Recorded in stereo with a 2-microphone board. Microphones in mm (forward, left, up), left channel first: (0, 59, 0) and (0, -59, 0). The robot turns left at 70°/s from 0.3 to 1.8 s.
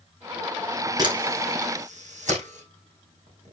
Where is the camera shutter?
35° right (ahead or behind), 5.5 m; by 3.5 s 80° right, 5.5 m.